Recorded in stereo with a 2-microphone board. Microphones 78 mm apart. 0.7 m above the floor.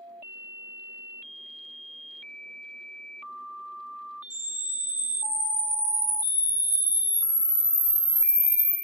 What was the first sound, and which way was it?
A camera shutter, 25° left (ahead or behind).